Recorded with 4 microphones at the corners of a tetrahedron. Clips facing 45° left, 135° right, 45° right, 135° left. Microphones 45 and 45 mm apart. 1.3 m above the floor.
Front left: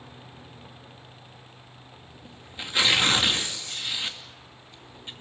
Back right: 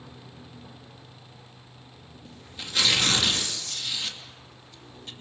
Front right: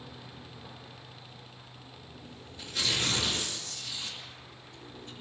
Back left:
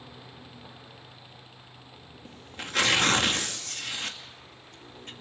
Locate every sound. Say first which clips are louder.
2.2 s tearing paper: front left 2 dB, back left 8 dB; 110° left, 2.5 m